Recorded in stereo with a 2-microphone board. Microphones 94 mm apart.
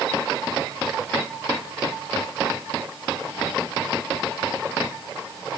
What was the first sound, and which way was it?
Only background noise.